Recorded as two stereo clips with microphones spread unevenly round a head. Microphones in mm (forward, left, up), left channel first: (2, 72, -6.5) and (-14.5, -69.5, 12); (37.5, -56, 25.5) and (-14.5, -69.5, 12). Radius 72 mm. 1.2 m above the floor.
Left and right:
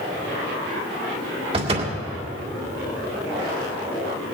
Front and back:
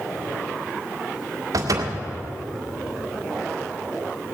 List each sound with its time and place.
1.5 s a door slam: 150° right, 1.9 m